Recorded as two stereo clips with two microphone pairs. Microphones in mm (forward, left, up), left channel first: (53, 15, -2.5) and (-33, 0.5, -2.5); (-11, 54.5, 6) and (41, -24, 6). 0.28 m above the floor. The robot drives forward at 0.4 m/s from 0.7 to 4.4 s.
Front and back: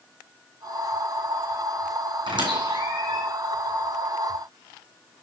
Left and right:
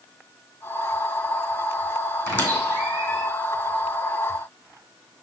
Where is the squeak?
170° right, 3 m.